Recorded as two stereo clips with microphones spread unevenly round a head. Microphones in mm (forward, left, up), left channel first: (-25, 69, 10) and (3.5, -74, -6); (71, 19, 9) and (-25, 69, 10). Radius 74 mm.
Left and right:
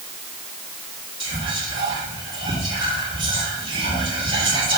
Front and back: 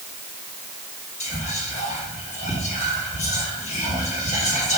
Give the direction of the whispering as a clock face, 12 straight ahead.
12 o'clock.